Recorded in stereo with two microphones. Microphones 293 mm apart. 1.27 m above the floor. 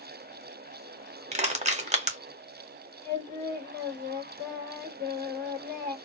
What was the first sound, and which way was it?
Crushing, 25° right (ahead or behind).